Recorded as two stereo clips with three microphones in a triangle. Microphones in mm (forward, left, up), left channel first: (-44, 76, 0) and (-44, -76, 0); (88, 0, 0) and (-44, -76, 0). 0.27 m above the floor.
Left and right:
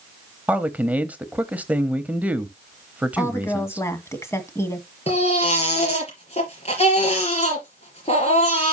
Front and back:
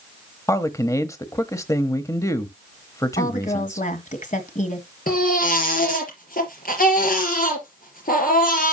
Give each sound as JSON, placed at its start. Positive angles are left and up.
{"t": 0.5, "sound": "a man speaking", "azimuth_deg": -20, "distance_m": 1.0}
{"t": 3.2, "sound": "a woman speaking", "azimuth_deg": 20, "distance_m": 1.9}
{"t": 5.1, "sound": "a baby crying", "azimuth_deg": 45, "distance_m": 4.0}